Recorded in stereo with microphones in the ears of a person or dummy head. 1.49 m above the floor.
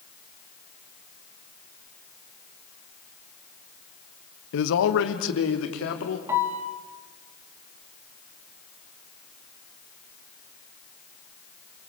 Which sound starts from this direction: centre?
A piano, at 6.3 s.